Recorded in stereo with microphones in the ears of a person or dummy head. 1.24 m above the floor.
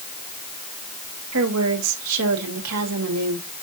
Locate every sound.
1.3 s a woman speaking: 80° right, 2 m